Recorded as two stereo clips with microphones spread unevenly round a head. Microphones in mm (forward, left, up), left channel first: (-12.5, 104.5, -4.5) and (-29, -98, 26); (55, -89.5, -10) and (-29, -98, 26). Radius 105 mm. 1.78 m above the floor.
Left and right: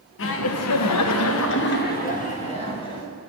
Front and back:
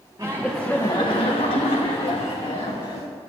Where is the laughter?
115° left, 0.9 m; by 3.1 s 15° left, 1.7 m.